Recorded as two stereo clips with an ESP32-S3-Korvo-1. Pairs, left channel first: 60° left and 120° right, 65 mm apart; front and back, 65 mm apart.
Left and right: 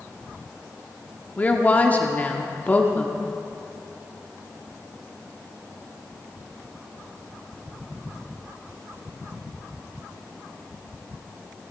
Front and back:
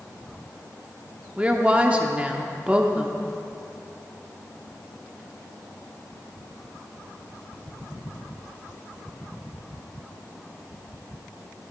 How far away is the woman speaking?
About 1.0 m.